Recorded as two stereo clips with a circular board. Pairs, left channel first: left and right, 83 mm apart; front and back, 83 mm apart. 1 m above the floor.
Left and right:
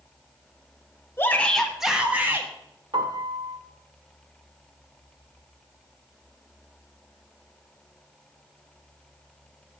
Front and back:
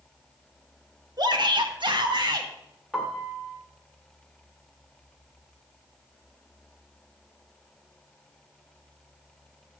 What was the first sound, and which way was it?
A shout, 150° left.